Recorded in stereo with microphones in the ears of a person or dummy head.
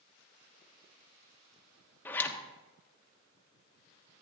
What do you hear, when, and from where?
2.0 s a zipper: 20° left (ahead or behind), 1.2 m